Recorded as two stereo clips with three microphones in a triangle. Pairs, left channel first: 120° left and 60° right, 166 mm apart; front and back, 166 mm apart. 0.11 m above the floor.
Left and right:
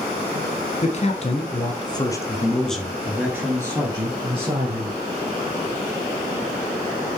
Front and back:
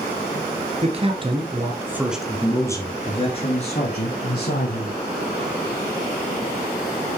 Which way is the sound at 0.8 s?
145° left.